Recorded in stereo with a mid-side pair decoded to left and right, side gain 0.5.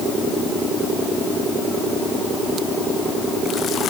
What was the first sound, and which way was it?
Only background noise.